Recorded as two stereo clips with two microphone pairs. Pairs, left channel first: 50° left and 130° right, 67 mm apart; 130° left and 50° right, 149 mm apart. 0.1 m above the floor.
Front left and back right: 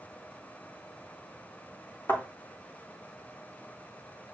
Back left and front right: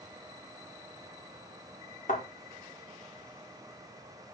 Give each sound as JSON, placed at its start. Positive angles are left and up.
{"t": 2.1, "sound": "a thud", "azimuth_deg": 100, "distance_m": 4.5}